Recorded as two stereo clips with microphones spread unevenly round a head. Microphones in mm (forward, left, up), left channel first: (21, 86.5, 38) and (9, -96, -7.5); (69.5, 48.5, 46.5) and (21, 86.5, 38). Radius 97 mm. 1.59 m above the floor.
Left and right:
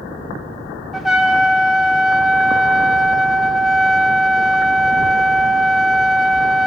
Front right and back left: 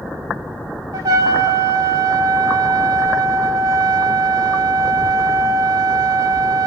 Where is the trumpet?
170° left, 0.7 m.